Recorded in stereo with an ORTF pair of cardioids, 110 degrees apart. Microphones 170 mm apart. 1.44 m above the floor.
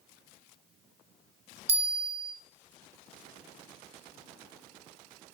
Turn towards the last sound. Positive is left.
turn(degrees=-40)